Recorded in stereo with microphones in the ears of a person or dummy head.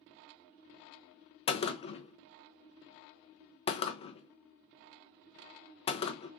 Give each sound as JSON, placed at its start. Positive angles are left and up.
{"t": 1.5, "sound": "a gunshot", "side_deg": 35, "distance_m": 0.5}